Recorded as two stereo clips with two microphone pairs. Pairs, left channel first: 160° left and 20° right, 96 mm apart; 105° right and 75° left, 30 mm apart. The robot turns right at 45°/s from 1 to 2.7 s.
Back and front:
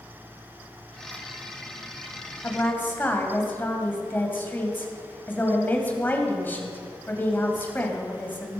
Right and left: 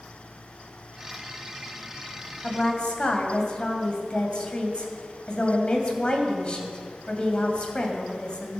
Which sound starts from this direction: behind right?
A woman speaking, at 2.4 s.